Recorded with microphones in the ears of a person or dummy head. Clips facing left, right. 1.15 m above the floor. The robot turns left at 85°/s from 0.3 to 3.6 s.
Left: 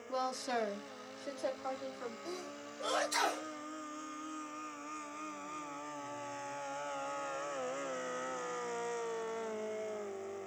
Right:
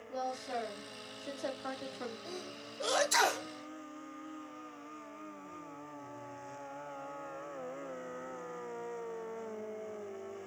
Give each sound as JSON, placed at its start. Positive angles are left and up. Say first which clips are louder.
{"t": 0.1, "sound": "a woman speaking", "louder": "left 1 dB", "azimuth_deg": 95, "distance_m": 0.8}
{"t": 2.2, "sound": "a sneeze", "louder": "left 1 dB", "side_deg": 0, "distance_m": 0.9}